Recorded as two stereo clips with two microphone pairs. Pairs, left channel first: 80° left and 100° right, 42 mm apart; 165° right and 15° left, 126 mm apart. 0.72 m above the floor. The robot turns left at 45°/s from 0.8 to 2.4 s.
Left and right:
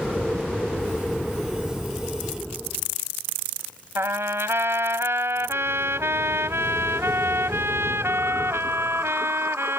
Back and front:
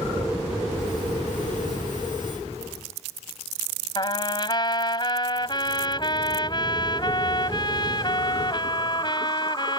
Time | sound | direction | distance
4.0 | a trumpet | 110° right | ?